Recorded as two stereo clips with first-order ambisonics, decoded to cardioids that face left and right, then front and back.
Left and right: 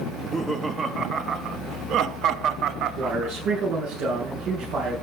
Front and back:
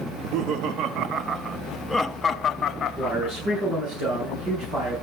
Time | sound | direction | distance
0.1 | laughter | 175° right | 1.3 m
3.0 | a man speaking | 130° right | 7.5 m